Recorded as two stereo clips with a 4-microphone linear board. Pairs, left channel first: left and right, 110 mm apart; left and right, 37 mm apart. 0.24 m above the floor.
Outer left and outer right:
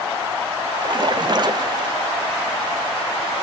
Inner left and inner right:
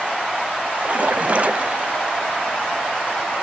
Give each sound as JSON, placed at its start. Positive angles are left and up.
{"t": 0.8, "sound": "a splash", "side_deg": -40, "distance_m": 0.5}